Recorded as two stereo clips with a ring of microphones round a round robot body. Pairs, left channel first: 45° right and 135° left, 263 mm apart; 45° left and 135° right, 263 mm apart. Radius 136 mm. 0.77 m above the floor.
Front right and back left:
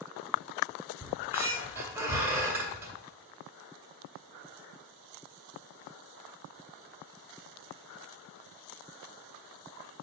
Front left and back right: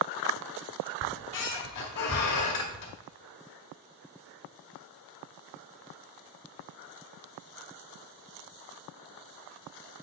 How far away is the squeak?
About 1.9 m.